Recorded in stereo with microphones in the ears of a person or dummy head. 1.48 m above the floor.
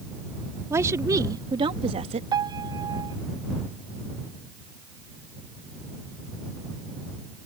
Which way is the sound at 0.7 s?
10° right (ahead or behind).